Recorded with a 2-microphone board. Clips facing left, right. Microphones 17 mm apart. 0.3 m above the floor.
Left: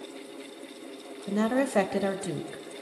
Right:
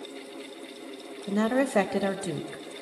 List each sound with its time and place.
1.3 s a woman speaking: 10° right (ahead or behind), 1.2 m